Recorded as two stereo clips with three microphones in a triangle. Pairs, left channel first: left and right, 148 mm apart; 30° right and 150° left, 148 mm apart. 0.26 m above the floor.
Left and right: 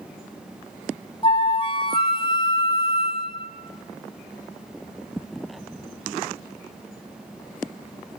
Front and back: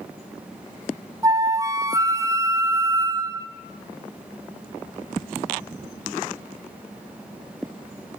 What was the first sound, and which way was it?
A flute, 100° left.